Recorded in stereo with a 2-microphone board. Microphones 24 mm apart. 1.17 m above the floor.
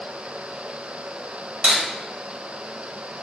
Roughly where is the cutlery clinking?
Right.